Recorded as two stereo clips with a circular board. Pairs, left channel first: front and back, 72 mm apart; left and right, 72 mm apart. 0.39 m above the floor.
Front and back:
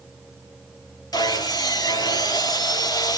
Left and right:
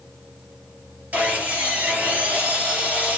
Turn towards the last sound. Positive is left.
turn(degrees=-20)